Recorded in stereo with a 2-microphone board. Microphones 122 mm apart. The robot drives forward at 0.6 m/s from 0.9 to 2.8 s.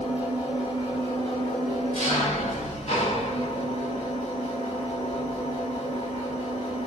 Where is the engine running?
60° left (ahead or behind), 1.8 m; by 6.9 s 80° left, 1.6 m.